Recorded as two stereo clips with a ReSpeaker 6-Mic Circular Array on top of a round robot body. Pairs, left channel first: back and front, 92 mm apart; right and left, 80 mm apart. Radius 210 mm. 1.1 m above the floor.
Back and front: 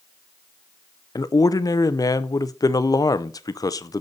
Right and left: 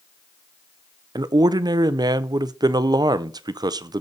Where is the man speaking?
130° left, 0.6 m.